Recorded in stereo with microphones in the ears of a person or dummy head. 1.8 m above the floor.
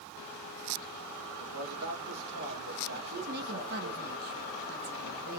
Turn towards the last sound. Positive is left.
turn(degrees=-50)  # may be behind; listen again after turning